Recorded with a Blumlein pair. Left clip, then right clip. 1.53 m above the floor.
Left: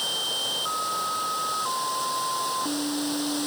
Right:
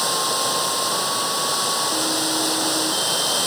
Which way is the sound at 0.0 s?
60° right.